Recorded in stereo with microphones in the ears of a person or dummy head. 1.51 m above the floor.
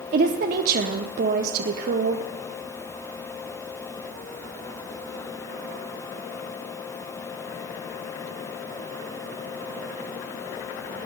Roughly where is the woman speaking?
Right.